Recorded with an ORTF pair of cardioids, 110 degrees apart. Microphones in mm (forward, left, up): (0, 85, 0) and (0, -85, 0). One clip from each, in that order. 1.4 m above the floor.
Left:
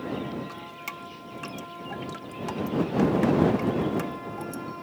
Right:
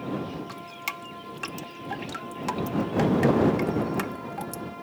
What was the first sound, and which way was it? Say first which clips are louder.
Dripping: right 3 dB; 35° right.